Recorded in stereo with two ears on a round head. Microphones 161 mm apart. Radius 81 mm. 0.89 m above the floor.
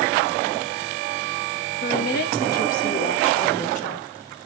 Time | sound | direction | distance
1.8 | a woman speaking | 55° left (ahead or behind) | 5 m